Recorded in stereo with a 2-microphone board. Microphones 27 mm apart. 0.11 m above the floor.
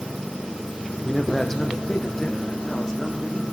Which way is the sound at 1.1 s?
5° left (ahead or behind).